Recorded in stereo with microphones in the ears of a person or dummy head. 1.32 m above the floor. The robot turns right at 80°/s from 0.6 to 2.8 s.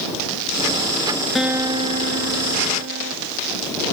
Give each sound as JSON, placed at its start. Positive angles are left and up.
{"t": 1.4, "sound": "a guitar", "azimuth_deg": 180}